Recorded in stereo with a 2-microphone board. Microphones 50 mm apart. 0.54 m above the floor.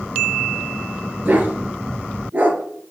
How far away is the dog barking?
About 2 m.